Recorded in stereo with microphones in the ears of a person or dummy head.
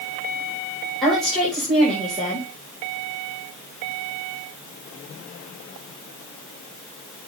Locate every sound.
1.0 s a woman speaking: 5° left (ahead or behind), 4.5 m